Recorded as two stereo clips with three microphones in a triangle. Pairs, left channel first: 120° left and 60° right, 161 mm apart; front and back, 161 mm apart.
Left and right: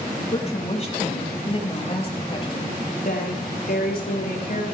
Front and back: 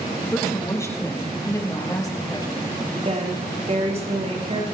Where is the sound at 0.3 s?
75° left, 6 m; by 2.9 s 65° left, 4 m.